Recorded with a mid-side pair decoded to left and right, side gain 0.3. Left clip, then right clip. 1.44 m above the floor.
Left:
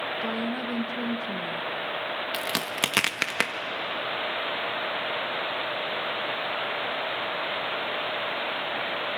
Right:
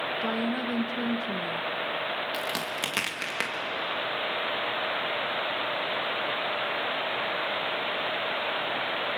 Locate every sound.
0.2 s a woman speaking: 15° right, 1.2 m
2.3 s a crack: 65° left, 1.4 m